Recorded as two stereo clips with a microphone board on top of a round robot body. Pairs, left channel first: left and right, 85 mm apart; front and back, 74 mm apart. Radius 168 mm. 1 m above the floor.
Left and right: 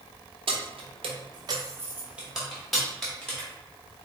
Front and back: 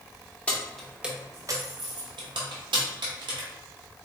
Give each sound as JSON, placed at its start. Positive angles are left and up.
{"t": 0.5, "sound": "keys jangling", "azimuth_deg": -75, "distance_m": 0.9}